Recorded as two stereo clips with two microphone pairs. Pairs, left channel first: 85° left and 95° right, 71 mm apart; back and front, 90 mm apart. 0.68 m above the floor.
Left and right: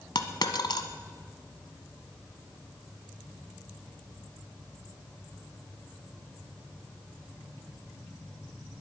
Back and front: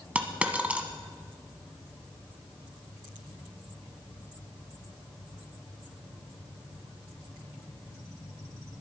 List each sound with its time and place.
0.1 s a dropped coin: 75° left, 1.1 m